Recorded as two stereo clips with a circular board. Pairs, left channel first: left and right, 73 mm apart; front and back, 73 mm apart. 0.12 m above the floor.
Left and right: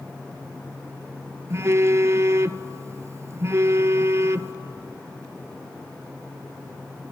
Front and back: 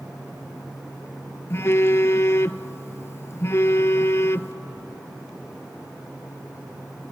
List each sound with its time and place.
1.5 s a phone buzzing: 45° right, 0.5 m